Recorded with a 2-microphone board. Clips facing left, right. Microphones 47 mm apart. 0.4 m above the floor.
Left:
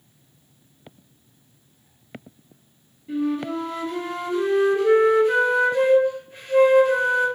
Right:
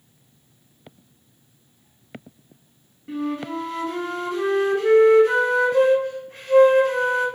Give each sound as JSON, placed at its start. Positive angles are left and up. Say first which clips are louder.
{"t": 3.1, "sound": "a flute", "louder": "left 2 dB", "side_deg": -65, "distance_m": 0.8}